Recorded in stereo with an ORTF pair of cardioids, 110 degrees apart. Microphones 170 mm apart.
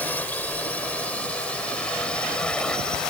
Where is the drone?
10° left; by 3.1 s 5° left.